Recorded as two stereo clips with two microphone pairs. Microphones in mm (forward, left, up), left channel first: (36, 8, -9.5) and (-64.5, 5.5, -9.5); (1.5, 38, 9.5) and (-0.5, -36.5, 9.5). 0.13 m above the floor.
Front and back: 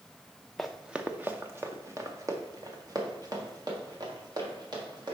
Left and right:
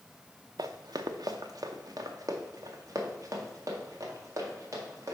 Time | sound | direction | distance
0.6 | running footsteps | 85° right | 0.7 m